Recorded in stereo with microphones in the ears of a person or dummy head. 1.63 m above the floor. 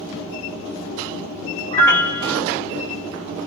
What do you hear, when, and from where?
1.7 s a piano: 15° left (ahead or behind), 1.8 m